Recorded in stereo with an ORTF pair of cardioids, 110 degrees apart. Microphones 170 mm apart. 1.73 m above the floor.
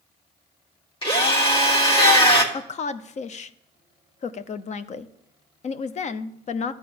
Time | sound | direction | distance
1.0 | a drill | 30° left | 2.5 m
2.5 | a woman speaking | 45° left | 0.8 m